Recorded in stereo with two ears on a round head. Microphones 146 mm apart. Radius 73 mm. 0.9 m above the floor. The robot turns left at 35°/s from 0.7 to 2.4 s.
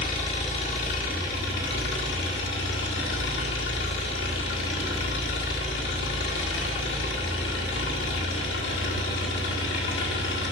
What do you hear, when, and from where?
0.0 s an engine running: 140° left, 1.7 m; by 10.5 s 80° left, 1.7 m